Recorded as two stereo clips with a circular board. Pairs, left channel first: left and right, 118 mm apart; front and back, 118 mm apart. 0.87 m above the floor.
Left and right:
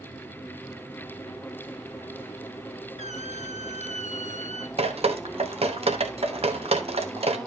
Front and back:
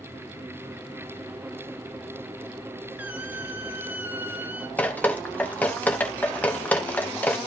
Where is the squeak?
105° left, 0.8 m.